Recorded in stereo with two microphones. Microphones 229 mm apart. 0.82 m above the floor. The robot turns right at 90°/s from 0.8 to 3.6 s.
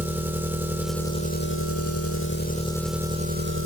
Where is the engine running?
10° right, 1.2 m; by 3.6 s 115° right, 1.2 m.